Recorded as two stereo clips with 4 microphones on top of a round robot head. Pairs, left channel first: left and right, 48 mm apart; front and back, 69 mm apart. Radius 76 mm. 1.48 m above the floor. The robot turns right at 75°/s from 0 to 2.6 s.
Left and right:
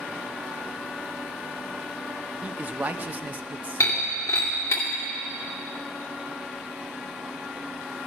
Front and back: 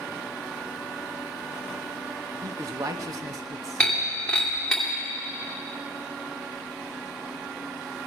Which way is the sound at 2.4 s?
155° right.